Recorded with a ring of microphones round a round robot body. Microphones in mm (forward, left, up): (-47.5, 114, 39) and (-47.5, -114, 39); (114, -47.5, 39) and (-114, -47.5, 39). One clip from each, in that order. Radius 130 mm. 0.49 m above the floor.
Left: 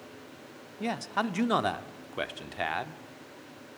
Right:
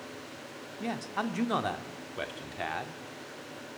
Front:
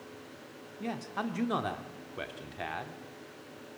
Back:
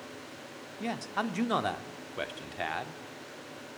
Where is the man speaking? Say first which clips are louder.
Left 3 dB, back 3 dB; 140° left, 1.1 m.